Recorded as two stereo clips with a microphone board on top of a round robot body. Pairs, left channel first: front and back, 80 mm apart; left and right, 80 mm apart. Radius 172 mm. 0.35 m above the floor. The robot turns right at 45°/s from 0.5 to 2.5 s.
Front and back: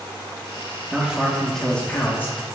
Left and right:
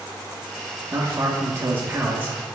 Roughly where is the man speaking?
Right.